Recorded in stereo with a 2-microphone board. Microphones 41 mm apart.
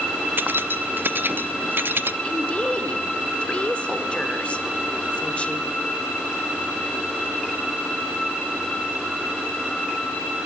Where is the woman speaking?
30° left (ahead or behind), 1.8 m.